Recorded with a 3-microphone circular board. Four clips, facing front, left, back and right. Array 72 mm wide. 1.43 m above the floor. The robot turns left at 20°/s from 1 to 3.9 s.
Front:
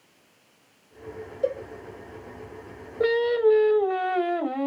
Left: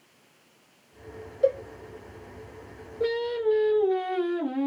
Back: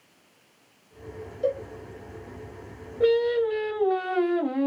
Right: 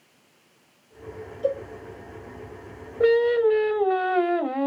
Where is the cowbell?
75° left, 1.0 m.